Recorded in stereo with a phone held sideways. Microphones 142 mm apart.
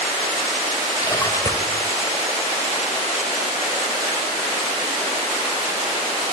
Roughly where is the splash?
Left.